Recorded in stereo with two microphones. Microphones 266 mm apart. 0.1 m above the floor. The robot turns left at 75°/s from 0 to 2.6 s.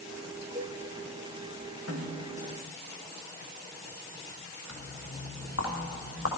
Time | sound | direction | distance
0.6 | a cowbell | 45° right (ahead or behind) | 1.2 m
1.9 | a snare drum | 60° right | 2.5 m
4.7 | footsteps | 75° left (ahead or behind) | 3 m